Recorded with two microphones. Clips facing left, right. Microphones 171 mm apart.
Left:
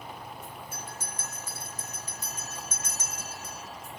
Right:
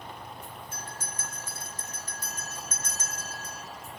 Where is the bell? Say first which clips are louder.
Even; 10° left (ahead or behind), 2 m.